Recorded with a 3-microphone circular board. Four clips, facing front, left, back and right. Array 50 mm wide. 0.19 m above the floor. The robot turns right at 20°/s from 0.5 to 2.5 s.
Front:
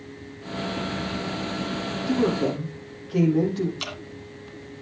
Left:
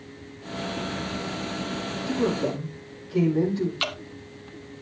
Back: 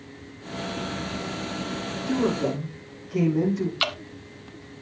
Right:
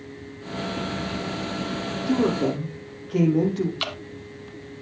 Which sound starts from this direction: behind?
Dripping, at 3.8 s.